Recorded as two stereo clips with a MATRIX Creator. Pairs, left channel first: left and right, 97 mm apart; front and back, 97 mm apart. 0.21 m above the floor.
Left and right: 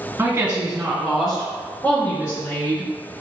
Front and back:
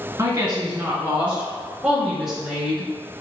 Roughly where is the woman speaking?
Behind right.